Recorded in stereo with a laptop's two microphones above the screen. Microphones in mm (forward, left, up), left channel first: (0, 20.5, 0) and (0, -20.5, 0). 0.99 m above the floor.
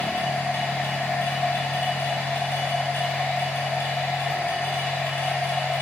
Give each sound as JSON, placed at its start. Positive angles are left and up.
{"t": 0.0, "sound": "a machine running", "side_deg": 75, "distance_m": 0.7}